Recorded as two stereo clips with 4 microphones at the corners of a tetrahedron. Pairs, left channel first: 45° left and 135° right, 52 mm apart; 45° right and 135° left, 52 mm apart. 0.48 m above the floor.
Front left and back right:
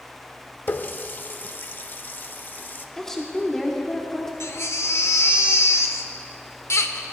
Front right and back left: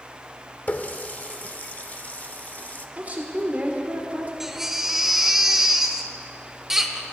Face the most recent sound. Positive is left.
turn(degrees=55)